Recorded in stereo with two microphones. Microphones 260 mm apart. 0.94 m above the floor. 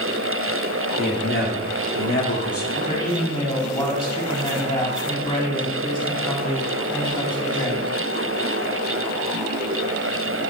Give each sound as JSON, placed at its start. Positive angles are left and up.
{"t": 1.0, "sound": "a man speaking", "side_deg": 45, "distance_m": 2.5}
{"t": 2.7, "sound": "a man speaking", "side_deg": 20, "distance_m": 2.5}